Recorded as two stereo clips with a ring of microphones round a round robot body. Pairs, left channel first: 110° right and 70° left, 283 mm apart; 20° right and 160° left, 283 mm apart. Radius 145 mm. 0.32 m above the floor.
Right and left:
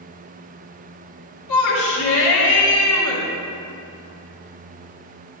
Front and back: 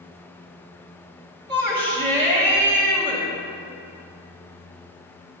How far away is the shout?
About 1.7 m.